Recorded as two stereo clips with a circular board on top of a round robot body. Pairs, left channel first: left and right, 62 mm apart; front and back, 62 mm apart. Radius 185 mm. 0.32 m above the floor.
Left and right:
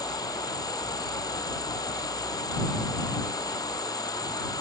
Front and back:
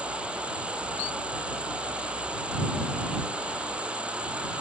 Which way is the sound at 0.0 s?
105° left.